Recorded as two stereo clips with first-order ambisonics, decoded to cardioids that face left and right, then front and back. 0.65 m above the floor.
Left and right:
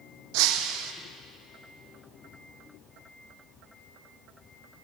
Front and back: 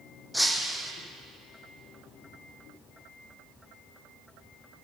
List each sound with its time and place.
0.3 s breaking glass: 90° right, 1.7 m